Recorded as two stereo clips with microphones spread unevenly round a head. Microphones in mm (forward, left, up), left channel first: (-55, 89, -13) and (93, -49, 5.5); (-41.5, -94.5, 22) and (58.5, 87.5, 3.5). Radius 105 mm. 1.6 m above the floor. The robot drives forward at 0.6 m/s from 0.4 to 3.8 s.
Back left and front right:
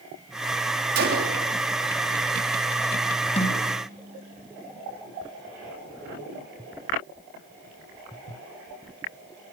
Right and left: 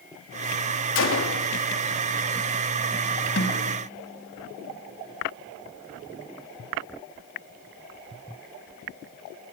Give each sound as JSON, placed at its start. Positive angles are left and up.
{"t": 0.9, "sound": "a gunshot", "azimuth_deg": -90, "distance_m": 3.5}
{"t": 3.4, "sound": "a snare drum", "azimuth_deg": -160, "distance_m": 5.0}